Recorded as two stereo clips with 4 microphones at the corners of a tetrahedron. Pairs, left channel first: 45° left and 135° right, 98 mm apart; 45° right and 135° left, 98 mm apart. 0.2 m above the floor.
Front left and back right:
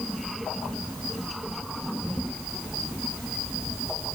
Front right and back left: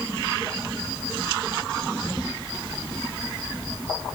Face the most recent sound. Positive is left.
No sound to turn to.